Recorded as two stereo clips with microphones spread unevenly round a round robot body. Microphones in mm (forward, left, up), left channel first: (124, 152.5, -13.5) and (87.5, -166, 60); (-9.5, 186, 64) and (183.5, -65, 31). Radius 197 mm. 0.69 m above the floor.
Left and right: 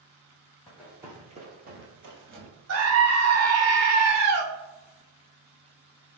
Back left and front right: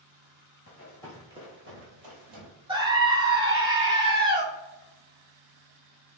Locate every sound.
0.7 s running footsteps: straight behind, 1.0 m; by 2.5 s 65° right, 1.2 m
2.7 s a scream: 105° right, 0.9 m